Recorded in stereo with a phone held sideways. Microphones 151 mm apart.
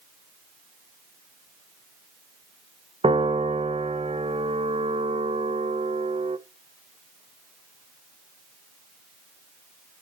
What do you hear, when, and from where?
3.0 s a piano: 40° right (ahead or behind), 0.8 m